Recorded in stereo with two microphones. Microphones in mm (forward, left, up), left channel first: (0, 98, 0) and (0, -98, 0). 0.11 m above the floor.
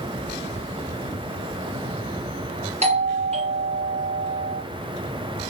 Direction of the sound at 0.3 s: 85° right.